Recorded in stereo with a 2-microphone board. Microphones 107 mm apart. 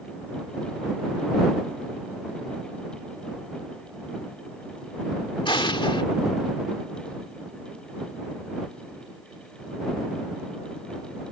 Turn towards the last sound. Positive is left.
turn(degrees=50)  # may be behind; listen again after turning